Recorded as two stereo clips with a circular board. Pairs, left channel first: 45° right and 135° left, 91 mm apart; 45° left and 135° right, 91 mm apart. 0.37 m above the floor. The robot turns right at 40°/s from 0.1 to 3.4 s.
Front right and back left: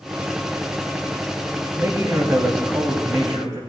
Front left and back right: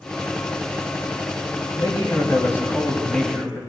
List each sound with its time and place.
1.8 s a man speaking: 75° left, 2 m; by 3.6 s 140° left, 2 m